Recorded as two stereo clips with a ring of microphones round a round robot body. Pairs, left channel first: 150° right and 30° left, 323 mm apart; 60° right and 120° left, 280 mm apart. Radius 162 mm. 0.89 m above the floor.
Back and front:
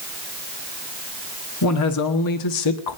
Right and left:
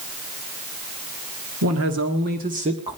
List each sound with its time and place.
1.6 s a man speaking: 170° left, 1.9 m; by 3.0 s 160° right, 1.5 m